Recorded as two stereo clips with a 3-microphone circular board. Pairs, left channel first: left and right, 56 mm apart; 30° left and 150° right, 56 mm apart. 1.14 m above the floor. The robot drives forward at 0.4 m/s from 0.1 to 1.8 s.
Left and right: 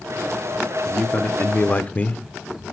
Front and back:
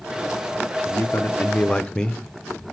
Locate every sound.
0.8 s a man speaking: 35° left, 0.8 m; by 2.2 s 85° left, 0.6 m